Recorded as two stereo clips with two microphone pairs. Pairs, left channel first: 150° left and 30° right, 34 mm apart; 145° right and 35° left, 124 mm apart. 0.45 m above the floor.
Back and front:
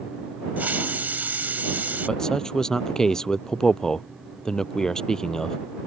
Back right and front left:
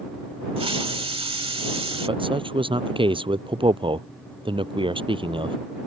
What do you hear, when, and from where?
0.6 s a hiss: straight ahead
2.1 s a man speaking: 80° left